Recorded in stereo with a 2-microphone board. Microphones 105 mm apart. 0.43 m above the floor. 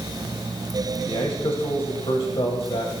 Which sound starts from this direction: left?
A man speaking, at 1.1 s.